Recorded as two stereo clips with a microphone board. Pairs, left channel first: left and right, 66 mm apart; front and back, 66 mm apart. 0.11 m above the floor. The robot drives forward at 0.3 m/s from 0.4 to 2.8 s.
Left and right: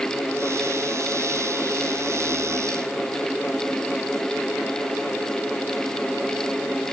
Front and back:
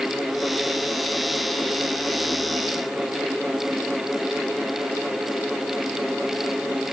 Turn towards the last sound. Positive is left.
No sound to turn to.